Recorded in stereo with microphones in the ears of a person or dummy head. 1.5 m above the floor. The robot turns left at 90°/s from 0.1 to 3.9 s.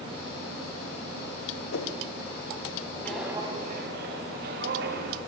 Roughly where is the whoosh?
Left.